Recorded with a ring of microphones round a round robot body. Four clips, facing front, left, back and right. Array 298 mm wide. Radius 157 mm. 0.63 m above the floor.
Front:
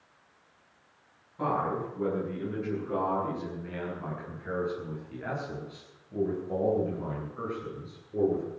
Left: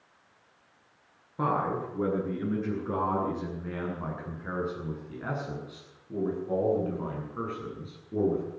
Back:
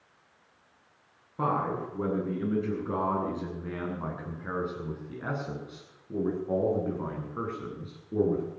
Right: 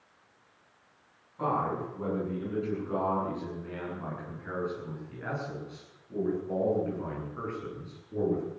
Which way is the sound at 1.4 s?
135° left.